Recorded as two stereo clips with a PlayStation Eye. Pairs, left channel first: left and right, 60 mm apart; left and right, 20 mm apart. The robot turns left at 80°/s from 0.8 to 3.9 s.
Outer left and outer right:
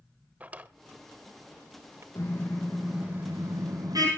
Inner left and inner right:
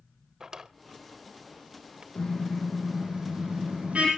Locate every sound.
0.4 s a drawer: 25° right (ahead or behind), 0.8 m; by 2.0 s 50° right (ahead or behind), 0.8 m
2.1 s a car horn: 55° left, 9 m; by 4.1 s 85° right, 9 m